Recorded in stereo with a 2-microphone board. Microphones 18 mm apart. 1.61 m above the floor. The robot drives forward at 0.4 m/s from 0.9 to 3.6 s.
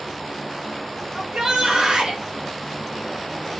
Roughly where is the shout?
Right.